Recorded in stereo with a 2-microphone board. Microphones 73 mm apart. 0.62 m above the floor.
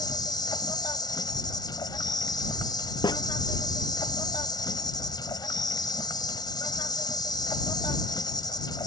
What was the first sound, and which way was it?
An insect, 75° left (ahead or behind).